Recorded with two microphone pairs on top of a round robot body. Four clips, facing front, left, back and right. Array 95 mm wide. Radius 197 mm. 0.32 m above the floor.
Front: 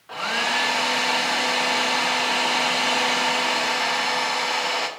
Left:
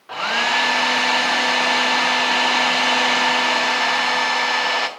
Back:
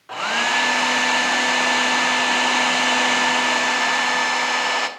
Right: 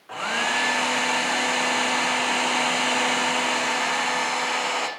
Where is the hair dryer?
140° left, 0.9 m.